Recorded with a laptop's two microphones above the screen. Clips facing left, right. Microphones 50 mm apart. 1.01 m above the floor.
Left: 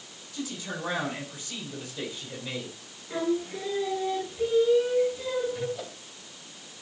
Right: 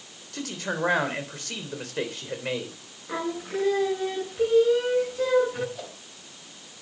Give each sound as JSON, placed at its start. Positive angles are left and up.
{"t": 0.3, "sound": "a man speaking", "side_deg": -70, "distance_m": 3.5}
{"t": 3.1, "sound": "singing", "side_deg": -65, "distance_m": 7.5}
{"t": 5.8, "sound": "a whoosh", "side_deg": -5, "distance_m": 3.0}